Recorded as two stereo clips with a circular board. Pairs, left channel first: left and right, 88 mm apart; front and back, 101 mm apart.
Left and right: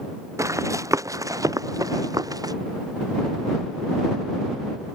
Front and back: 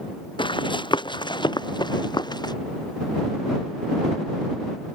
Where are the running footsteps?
35° right; by 2.5 s 45° right.